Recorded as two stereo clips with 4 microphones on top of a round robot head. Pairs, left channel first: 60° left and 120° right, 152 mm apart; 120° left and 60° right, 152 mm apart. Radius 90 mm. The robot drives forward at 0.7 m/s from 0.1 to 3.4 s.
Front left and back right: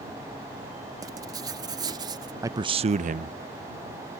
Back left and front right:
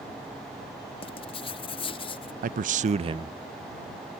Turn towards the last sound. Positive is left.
turn(degrees=-125)